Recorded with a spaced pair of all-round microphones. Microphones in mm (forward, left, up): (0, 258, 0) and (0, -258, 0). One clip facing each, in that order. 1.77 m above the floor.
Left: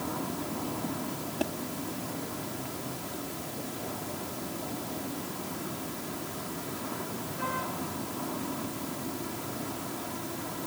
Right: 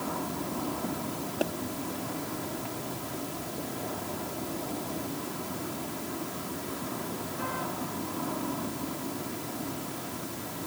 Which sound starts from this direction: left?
A pop, at 1.4 s.